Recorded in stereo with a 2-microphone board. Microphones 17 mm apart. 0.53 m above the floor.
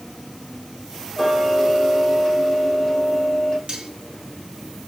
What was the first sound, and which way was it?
Ticking, 5° left (ahead or behind).